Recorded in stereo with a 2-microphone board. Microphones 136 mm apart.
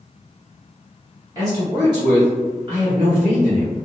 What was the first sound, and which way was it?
A man speaking, 25° right (ahead or behind).